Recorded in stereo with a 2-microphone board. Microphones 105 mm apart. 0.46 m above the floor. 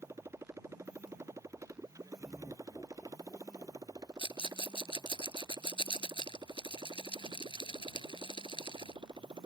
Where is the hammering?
No hammering in this recording.